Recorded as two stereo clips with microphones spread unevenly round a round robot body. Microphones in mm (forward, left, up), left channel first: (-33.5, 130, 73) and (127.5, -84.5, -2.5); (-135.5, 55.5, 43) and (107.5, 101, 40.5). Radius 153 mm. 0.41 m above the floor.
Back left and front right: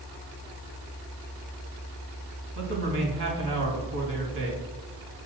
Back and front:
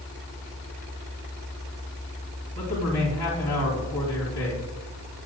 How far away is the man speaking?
About 4 m.